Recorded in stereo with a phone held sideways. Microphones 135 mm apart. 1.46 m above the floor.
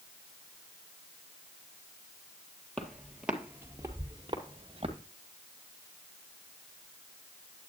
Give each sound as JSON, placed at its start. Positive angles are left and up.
{"t": 2.8, "sound": "footsteps", "side_deg": 5, "distance_m": 2.0}